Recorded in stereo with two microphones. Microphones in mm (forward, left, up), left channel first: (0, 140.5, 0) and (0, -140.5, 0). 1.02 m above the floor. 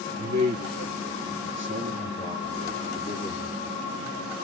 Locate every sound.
0.2 s a man speaking: 80° right, 1.9 m; by 3.8 s 15° left (ahead or behind), 2.5 m